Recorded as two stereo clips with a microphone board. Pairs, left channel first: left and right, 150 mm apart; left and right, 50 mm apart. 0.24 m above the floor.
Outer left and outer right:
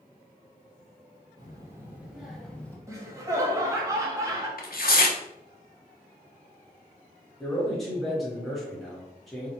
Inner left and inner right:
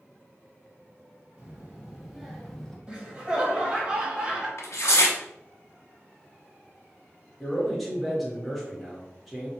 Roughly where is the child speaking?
Right.